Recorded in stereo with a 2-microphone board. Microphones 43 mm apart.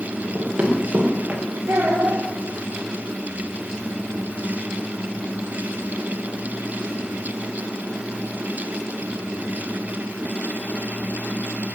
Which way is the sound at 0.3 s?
45° right (ahead or behind).